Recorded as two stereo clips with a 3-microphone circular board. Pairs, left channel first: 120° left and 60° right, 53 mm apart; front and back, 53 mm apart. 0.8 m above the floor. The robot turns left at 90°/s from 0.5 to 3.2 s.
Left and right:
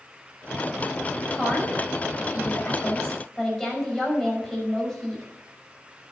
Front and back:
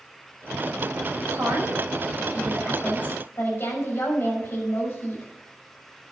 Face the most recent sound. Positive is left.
turn(degrees=40)